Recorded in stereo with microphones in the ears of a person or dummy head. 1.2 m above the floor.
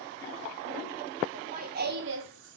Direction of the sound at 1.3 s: 35° right (ahead or behind).